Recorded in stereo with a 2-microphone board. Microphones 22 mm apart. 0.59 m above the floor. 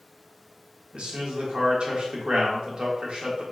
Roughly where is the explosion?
No explosion in this recording.